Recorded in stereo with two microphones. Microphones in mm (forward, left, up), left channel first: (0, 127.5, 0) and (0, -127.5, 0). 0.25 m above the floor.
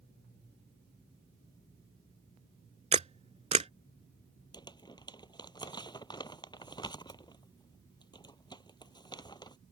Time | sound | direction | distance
2.9 | a camera shutter | 25° right (ahead or behind) | ?
4.5 | crumpling | 15° left (ahead or behind) | ?